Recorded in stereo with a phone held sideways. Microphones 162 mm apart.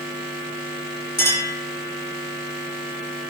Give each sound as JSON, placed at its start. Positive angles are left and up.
{"t": 1.2, "sound": "a clink", "side_deg": -85, "distance_m": 5.0}